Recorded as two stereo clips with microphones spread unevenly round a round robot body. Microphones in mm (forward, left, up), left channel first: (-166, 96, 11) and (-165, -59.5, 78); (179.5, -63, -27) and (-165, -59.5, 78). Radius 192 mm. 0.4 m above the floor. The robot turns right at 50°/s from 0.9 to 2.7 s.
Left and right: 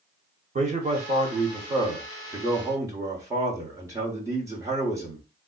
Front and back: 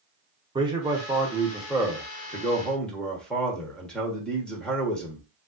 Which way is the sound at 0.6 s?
75° right.